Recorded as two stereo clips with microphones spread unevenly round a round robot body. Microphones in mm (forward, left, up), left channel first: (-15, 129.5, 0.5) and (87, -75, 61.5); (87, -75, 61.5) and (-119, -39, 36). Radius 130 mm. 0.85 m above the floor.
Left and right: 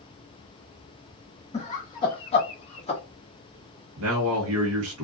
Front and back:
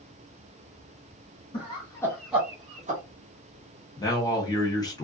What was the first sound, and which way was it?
Laughter, 55° left.